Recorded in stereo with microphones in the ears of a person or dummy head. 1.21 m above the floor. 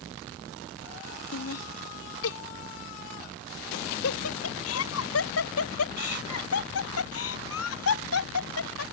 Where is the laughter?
85° left.